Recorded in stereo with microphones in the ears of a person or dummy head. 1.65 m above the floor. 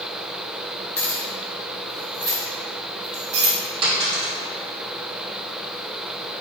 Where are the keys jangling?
10° left (ahead or behind), 1.2 m; by 3.5 s 45° right (ahead or behind), 1.8 m.